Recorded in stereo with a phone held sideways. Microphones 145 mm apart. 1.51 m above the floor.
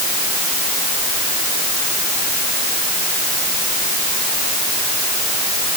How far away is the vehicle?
No vehicle in this recording.